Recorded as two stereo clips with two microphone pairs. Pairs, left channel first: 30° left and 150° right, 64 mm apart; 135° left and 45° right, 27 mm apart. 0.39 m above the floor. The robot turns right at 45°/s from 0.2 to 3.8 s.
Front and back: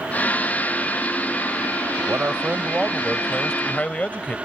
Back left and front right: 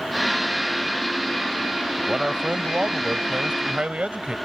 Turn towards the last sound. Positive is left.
turn(degrees=-30)